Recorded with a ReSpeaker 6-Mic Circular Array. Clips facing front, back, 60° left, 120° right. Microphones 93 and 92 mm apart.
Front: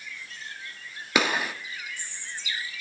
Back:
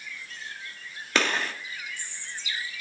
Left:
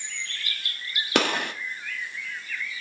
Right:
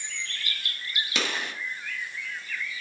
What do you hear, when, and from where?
1.1 s a gunshot: 80° left, 1.2 m